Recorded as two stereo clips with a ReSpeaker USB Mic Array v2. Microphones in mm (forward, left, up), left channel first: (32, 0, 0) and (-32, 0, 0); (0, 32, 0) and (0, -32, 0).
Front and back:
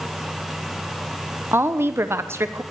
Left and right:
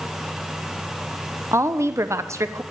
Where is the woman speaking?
135° right, 1.1 m.